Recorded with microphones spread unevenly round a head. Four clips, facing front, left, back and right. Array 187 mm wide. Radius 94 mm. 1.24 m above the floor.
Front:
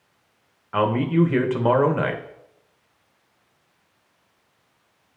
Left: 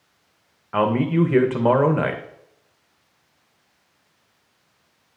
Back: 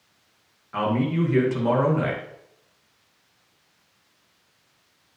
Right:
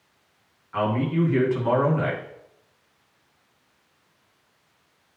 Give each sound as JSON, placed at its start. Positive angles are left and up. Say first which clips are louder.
{"t": 0.7, "sound": "a man speaking", "louder": "left 5 dB, front 4 dB", "azimuth_deg": 70, "distance_m": 1.1}